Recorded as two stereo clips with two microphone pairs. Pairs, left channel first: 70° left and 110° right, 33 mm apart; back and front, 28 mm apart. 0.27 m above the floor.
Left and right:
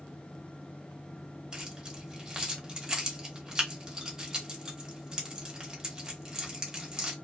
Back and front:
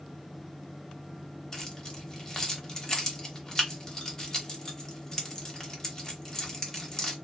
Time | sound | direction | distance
1.5 | keys jangling | 150° right | 0.9 m